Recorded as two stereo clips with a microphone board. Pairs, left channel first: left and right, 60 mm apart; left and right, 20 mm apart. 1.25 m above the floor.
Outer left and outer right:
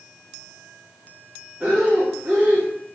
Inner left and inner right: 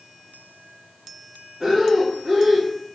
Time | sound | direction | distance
1.6 | breathing | 25° right (ahead or behind) | 1.3 m